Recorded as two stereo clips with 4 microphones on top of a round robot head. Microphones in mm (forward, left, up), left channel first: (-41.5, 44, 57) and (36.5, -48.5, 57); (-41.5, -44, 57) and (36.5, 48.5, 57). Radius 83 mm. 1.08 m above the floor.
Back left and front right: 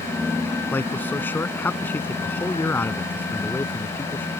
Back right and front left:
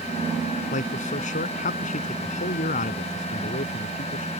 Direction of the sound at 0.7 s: 155° right.